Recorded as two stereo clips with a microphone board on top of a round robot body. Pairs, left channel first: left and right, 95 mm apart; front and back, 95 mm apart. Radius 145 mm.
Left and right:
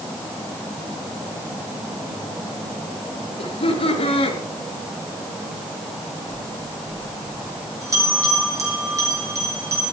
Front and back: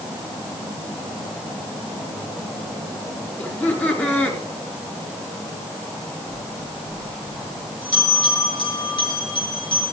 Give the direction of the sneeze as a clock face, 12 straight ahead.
No sneeze in this recording.